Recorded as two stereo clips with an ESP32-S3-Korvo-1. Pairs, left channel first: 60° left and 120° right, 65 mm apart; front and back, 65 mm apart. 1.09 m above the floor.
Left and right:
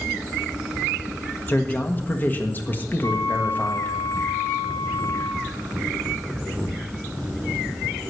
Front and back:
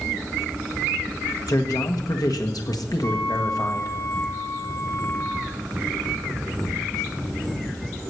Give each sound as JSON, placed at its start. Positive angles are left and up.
{"t": 1.5, "sound": "a man speaking", "azimuth_deg": 0, "distance_m": 1.5}
{"t": 3.0, "sound": "a flute", "azimuth_deg": 35, "distance_m": 2.5}